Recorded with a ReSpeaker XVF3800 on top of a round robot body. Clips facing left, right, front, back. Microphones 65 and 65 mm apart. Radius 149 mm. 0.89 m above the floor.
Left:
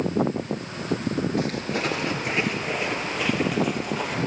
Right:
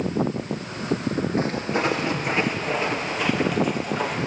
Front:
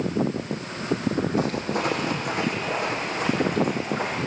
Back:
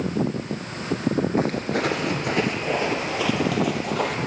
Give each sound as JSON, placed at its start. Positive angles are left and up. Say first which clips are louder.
{"t": 1.4, "sound": "footsteps", "louder": "right 3 dB, back 2 dB", "azimuth_deg": -155, "distance_m": 0.8}